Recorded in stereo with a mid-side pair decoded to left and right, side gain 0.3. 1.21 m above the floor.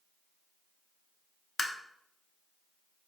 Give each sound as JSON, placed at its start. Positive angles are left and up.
{"t": 1.6, "sound": "tapping", "azimuth_deg": 60, "distance_m": 0.6}